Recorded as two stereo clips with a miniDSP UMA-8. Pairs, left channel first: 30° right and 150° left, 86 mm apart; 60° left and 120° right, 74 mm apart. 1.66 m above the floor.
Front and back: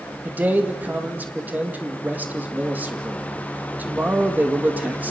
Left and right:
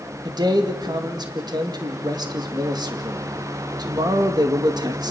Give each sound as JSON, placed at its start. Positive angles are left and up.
{"t": 0.2, "sound": "a man speaking", "azimuth_deg": -140, "distance_m": 2.5}